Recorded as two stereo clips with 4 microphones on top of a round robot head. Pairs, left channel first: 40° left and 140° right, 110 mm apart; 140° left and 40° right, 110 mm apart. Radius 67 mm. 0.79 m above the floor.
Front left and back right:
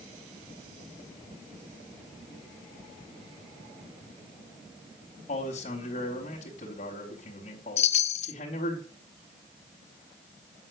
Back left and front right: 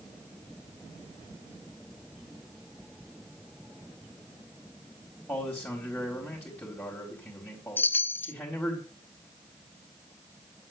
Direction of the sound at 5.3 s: 60° left.